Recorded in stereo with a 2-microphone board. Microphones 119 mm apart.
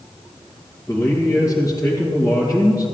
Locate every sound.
0.9 s a man speaking: 25° left (ahead or behind), 2.5 m